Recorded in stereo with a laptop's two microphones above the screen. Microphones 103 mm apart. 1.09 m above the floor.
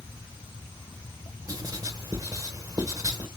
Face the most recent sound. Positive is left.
turn(degrees=-35)  # may be behind; listen again after turning